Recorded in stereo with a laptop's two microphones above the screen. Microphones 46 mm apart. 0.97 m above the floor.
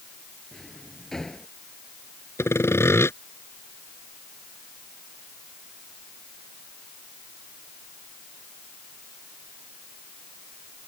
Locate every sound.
0.5 s a drawer: 10° left (ahead or behind)
2.4 s sawing: 70° left (ahead or behind)